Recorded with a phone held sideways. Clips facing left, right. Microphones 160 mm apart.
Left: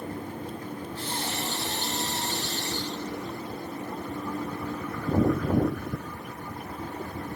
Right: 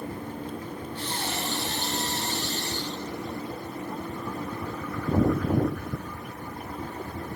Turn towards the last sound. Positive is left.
turn(degrees=-85)